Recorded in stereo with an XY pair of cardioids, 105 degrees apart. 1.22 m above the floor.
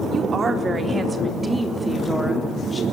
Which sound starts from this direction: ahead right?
A woman speaking, at 0.1 s.